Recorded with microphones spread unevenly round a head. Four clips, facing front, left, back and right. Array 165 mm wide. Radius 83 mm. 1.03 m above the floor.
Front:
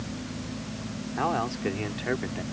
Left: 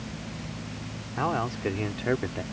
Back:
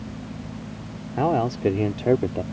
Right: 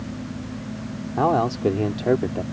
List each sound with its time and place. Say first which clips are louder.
1.2 s a man speaking: right 8 dB, back 6 dB; 135° right; by 2.4 s 150° right